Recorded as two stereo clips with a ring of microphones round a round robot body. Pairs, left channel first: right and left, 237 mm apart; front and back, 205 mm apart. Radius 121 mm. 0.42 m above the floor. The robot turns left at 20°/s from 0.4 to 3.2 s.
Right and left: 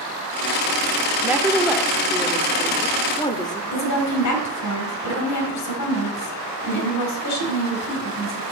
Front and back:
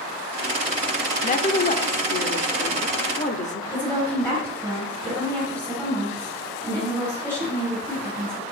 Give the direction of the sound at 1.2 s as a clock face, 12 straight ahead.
12 o'clock.